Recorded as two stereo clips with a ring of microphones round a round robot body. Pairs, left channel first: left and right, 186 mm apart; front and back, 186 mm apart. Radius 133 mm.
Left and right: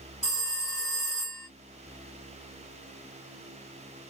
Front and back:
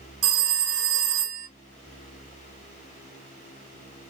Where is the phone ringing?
Straight behind, 1.1 m.